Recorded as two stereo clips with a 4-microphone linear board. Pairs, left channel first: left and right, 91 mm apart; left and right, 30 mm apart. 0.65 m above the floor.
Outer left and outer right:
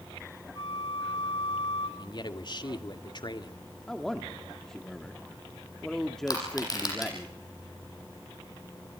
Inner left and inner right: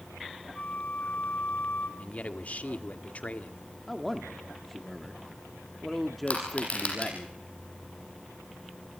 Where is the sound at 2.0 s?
55° left (ahead or behind), 1.7 m.